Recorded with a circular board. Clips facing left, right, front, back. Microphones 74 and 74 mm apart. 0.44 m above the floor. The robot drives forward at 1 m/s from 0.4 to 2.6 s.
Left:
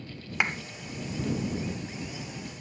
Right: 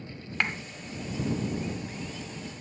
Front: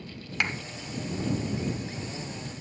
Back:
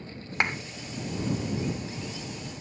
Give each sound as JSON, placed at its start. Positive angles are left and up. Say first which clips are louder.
{"t": 0.4, "sound": "a clap", "louder": "left 1 dB, back 2 dB", "azimuth_deg": 160, "distance_m": 0.9}